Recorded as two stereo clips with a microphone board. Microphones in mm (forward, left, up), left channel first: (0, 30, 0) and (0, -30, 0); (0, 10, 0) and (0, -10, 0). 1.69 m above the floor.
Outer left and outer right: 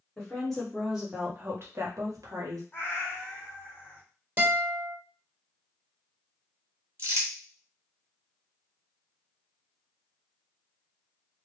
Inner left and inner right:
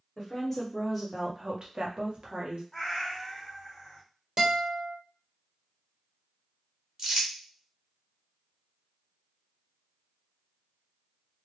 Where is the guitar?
30° right (ahead or behind), 1.7 m.